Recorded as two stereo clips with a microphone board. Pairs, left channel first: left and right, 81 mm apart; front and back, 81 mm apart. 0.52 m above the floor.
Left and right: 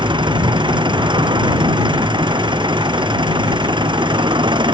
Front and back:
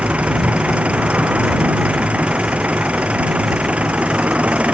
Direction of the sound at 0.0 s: 105° right.